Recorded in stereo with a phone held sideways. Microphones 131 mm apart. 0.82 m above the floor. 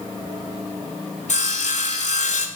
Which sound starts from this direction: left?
Sawing, at 1.3 s.